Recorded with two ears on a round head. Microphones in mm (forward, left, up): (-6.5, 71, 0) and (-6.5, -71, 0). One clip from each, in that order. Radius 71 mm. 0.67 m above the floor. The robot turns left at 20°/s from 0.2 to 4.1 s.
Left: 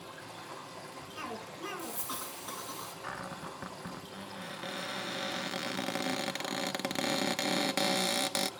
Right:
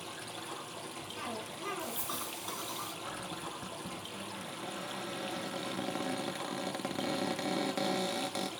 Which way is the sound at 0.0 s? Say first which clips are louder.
Right 3 dB; 50° right.